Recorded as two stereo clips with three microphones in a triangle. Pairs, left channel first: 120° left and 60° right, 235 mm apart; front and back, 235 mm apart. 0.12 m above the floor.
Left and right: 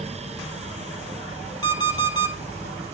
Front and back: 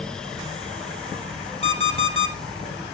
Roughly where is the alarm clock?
Ahead right.